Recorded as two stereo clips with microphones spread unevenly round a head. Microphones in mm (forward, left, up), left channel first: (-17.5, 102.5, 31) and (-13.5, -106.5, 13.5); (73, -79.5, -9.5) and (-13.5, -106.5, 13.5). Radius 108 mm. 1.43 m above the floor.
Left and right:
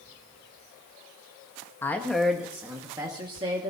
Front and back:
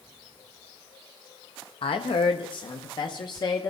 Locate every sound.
1.8 s a woman speaking: 10° left, 1.3 m; by 3.7 s 25° right, 2 m